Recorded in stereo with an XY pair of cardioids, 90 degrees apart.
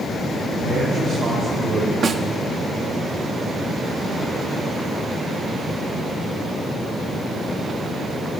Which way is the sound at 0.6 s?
65° right.